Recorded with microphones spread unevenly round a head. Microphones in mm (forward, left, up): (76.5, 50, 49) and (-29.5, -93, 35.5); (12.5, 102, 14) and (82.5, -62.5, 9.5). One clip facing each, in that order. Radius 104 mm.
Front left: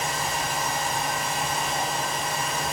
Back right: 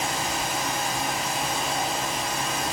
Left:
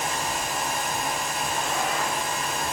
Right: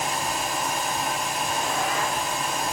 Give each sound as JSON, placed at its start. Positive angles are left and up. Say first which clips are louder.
{"t": 0.0, "sound": "a fan", "louder": "back right 1 dB, right 1 dB", "azimuth_deg": -125, "distance_m": 4.0}